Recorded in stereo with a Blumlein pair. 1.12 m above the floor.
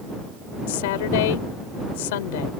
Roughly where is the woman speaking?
Ahead left.